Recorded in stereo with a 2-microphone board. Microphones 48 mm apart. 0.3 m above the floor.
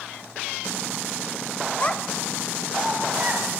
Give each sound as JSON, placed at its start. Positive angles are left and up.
{"t": 1.8, "sound": "a child speaking", "side_deg": 30, "distance_m": 0.6}